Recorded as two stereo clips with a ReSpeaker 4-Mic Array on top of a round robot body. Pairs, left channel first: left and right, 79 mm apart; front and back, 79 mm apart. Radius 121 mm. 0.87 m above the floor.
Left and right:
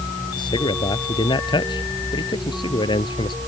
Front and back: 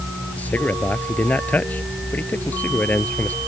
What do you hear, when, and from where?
0.4 s a man speaking: 70° left